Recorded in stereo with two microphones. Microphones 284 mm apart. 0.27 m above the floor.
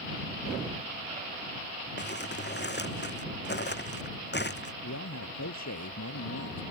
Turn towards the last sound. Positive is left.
turn(degrees=70)  # may be behind; listen again after turning